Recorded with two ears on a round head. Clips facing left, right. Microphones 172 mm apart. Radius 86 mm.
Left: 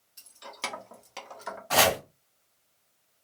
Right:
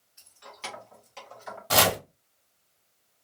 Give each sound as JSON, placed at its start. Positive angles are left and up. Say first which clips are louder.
{"t": 0.2, "sound": "keys jangling", "louder": "left 3 dB", "side_deg": 45, "distance_m": 1.1}
{"t": 1.7, "sound": "chopping", "louder": "even", "side_deg": -45, "distance_m": 0.9}